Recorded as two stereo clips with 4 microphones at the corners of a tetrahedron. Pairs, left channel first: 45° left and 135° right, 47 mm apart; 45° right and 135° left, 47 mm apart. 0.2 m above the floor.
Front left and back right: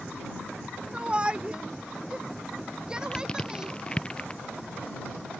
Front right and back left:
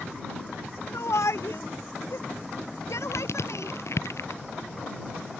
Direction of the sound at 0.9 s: 65° right.